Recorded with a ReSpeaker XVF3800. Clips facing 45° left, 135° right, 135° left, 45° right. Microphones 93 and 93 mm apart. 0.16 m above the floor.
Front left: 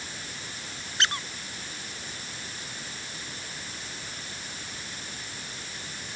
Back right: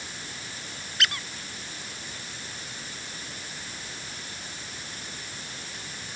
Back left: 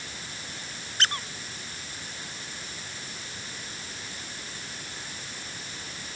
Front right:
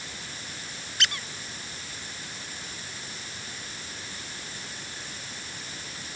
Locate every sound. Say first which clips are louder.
1.0 s a squeak: front left 1 dB, back left 2 dB; 95° left